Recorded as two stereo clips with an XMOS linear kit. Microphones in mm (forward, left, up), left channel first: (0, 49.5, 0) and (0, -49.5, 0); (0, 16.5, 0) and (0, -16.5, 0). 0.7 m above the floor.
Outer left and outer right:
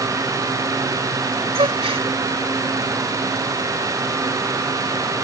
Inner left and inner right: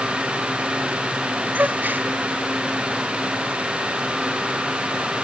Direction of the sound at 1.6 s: 75° right (ahead or behind).